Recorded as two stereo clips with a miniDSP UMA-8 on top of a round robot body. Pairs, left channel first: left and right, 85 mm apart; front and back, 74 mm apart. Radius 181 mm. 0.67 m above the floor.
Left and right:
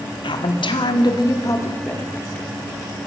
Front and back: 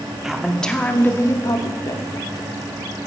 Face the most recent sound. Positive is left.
turn(degrees=10)